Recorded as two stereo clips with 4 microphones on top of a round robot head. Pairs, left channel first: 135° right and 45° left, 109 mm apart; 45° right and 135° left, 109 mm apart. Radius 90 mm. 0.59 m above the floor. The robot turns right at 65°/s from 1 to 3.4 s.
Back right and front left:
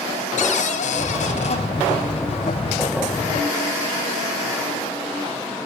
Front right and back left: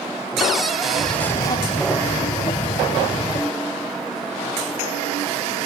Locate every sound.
0.4 s a cupboard door: 135° right, 2 m; by 1.6 s 95° right, 2 m